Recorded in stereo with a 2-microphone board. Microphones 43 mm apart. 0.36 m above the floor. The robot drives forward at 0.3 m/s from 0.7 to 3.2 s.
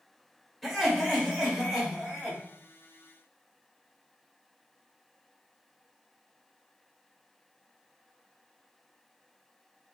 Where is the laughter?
Centre (ahead or behind), 1.0 m.